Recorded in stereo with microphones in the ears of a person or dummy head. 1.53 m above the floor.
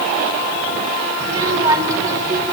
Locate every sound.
1.2 s a child speaking: 25° right (ahead or behind), 4 m; by 2.5 s 20° right (ahead or behind), 3 m